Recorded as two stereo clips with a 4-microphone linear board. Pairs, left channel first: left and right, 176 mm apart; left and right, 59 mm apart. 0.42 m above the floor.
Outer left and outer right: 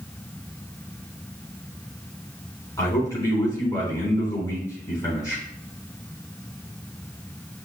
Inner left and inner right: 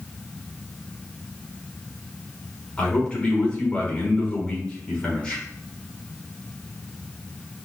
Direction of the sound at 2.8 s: 20° left (ahead or behind).